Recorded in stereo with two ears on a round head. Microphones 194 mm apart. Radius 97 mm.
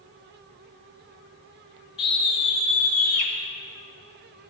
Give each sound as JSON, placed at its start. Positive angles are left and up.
{"t": 2.0, "sound": "a scream", "side_deg": 25, "distance_m": 4.5}